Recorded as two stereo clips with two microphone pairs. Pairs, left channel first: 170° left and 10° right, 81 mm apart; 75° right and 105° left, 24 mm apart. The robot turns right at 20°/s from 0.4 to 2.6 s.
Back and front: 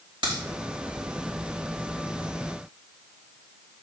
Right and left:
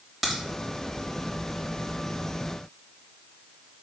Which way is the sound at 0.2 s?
10° left.